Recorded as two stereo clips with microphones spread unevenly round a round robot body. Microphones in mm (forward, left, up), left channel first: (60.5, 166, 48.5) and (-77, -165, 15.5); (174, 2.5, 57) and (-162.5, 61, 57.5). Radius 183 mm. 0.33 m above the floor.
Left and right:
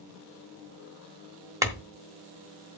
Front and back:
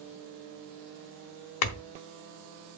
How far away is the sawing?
I don't hear sawing.